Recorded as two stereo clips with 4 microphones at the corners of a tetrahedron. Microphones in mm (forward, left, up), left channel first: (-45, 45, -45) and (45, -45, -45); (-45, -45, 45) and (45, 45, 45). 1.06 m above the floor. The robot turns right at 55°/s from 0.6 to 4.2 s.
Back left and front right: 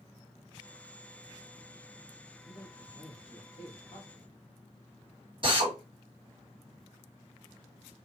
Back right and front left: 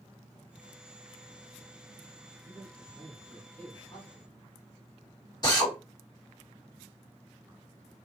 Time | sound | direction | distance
2.4 | a man speaking | 85° left | 1.9 m
5.4 | a drill | 80° right | 1.4 m